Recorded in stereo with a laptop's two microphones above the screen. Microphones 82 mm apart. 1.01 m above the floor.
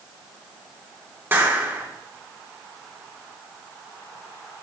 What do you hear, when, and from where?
1.3 s a clap: 30° right (ahead or behind), 3 m